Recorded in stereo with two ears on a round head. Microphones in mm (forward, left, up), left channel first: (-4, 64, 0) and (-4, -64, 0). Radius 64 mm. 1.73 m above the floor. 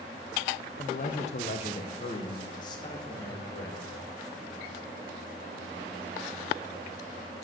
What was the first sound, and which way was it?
A man speaking, 55° left (ahead or behind).